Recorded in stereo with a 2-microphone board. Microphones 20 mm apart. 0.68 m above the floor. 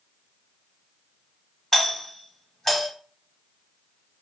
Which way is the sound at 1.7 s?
25° left (ahead or behind).